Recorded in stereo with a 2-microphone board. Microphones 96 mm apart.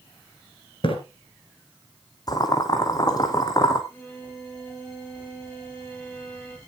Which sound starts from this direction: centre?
A violin, at 3.9 s.